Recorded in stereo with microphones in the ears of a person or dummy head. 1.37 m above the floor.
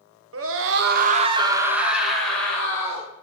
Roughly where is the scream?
Right.